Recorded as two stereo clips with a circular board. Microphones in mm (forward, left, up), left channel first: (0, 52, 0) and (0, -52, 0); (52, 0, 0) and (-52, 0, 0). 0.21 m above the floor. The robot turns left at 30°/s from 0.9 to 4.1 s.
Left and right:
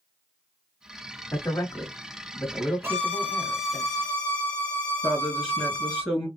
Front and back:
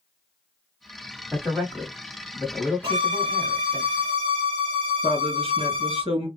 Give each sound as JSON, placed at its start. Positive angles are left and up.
{"t": 1.3, "sound": "a man speaking", "azimuth_deg": 90, "distance_m": 1.2}
{"t": 2.8, "sound": "a violin", "azimuth_deg": -155, "distance_m": 1.0}
{"t": 5.0, "sound": "a woman speaking", "azimuth_deg": -170, "distance_m": 3.0}